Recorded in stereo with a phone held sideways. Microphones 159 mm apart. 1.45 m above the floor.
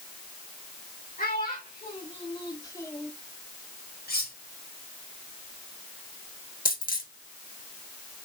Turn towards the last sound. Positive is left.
turn(degrees=60)  # may be behind; listen again after turning